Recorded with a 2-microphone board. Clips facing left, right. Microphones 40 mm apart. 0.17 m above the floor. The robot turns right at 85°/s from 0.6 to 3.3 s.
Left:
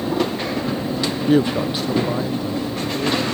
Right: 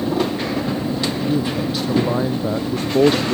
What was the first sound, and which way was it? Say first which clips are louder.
A woman speaking: left 7 dB; 115° left.